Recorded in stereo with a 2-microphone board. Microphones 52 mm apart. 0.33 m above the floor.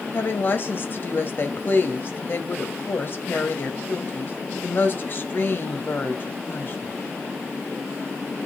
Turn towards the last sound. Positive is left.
turn(degrees=45)  # may be behind; listen again after turning